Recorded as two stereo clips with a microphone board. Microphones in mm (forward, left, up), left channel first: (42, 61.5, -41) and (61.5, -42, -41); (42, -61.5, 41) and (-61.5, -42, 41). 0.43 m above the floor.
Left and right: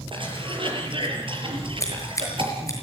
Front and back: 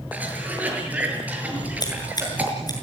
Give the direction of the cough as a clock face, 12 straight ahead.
4 o'clock.